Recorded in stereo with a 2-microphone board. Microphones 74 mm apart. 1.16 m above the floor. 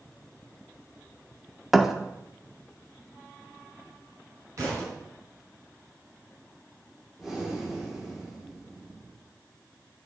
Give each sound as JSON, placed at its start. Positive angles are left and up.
{"t": 1.7, "sound": "a thud", "side_deg": -5, "distance_m": 0.7}
{"t": 4.6, "sound": "a thud", "side_deg": -45, "distance_m": 5.5}
{"t": 7.2, "sound": "breathing", "side_deg": -5, "distance_m": 1.9}